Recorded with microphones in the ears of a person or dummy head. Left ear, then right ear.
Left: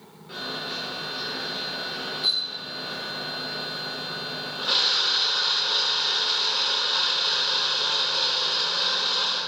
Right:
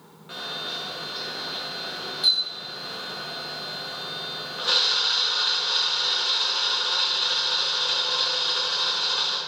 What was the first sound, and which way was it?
A camera shutter, 35° right (ahead or behind).